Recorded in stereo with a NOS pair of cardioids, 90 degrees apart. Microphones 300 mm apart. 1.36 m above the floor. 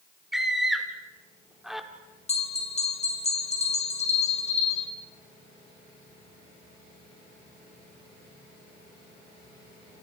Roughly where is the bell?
Ahead left.